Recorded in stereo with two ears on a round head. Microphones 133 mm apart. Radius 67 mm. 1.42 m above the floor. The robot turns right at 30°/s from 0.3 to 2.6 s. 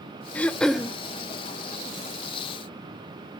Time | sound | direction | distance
0.3 | throat clearing | 10° left (ahead or behind) | 0.5 m